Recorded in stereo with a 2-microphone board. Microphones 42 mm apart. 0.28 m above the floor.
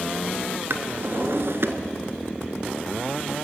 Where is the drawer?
65° right (ahead or behind), 1.5 m.